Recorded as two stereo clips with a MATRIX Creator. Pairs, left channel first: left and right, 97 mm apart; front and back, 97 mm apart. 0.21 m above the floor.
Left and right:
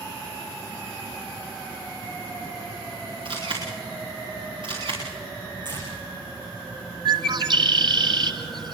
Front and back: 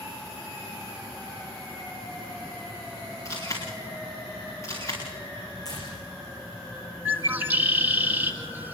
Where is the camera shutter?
60° right, 9 m.